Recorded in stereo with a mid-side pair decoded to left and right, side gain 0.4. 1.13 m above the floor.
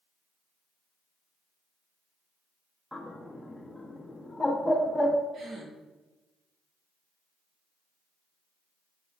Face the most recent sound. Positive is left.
turn(degrees=-65)